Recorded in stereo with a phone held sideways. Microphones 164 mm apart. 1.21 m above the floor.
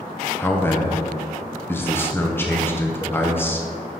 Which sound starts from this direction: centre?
A man speaking, at 0.4 s.